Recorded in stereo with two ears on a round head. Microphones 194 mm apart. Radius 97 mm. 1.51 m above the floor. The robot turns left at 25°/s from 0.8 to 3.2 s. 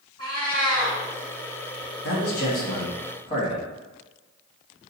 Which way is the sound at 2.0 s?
55° left (ahead or behind).